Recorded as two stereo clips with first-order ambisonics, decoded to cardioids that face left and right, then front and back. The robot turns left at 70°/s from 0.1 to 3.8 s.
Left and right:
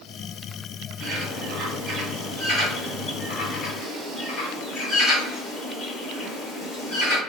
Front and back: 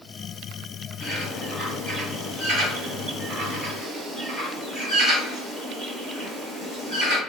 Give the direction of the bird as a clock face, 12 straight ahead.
2 o'clock.